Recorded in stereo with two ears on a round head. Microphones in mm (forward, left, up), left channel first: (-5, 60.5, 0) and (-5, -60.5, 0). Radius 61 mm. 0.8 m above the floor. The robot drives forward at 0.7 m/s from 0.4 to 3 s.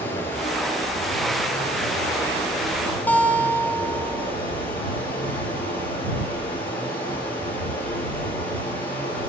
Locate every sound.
0.0 s running water: 15° left (ahead or behind), 9 m
3.1 s a guitar: 15° left (ahead or behind), 3.5 m